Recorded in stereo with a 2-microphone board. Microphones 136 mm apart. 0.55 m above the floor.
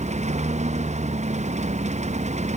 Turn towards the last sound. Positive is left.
turn(degrees=-60)  # may be behind; listen again after turning